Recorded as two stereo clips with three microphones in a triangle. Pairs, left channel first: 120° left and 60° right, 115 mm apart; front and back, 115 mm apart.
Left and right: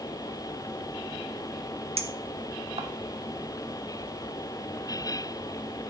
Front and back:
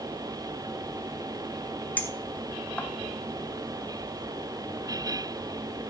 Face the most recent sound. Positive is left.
turn(degrees=-75)